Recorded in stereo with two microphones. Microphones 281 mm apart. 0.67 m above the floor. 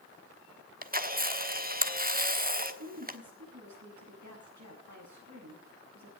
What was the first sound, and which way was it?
A camera shutter, 30° right (ahead or behind).